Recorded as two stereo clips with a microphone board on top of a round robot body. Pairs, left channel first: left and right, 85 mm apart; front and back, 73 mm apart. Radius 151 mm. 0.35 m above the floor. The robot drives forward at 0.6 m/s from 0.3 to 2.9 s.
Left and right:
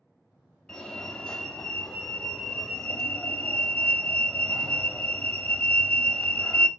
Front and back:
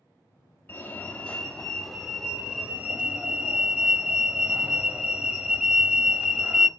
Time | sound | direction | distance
0.7 | a fire alarm | 20° left | 1.9 m